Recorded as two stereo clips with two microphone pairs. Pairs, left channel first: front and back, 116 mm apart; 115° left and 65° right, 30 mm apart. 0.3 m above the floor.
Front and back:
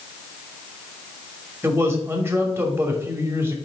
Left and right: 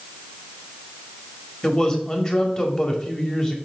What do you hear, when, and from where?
1.6 s a man speaking: 140° left, 1.3 m